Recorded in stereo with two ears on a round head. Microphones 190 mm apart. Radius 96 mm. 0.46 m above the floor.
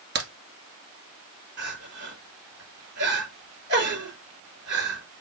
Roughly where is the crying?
Right.